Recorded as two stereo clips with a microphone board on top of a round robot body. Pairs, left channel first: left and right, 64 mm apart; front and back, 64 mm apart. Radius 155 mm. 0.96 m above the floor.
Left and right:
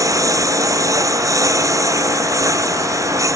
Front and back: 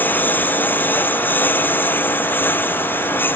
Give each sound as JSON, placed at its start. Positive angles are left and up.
{"t": 0.0, "sound": "a lawn mower", "azimuth_deg": -60}